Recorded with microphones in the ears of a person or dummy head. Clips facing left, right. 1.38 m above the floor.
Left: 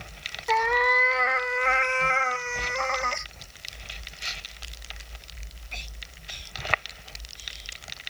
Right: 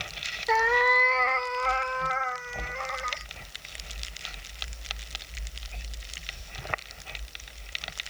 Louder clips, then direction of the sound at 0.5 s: Even; 10° right (ahead or behind).